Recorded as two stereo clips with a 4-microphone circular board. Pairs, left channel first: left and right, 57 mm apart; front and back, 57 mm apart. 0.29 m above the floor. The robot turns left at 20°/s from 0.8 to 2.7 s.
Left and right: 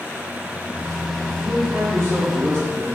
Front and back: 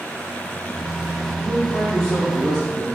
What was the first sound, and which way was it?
A man speaking, 90° right.